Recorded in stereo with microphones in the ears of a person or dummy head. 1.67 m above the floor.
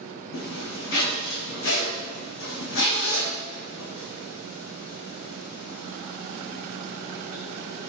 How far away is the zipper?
About 2.0 m.